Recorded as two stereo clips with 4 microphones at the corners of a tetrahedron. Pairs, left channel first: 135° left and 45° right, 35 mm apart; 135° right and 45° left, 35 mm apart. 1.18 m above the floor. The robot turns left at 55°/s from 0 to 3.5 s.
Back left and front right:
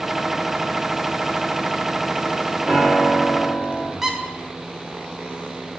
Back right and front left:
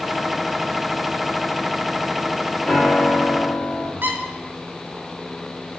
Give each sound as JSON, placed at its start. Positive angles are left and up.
{"t": 2.6, "sound": "a piano", "azimuth_deg": -85, "distance_m": 1.2}
{"t": 4.0, "sound": "a squeak", "azimuth_deg": 35, "distance_m": 0.5}